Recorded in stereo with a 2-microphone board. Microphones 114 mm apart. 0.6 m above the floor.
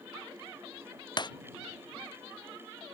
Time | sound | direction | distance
1.2 | breaking glass | 45° left (ahead or behind) | ?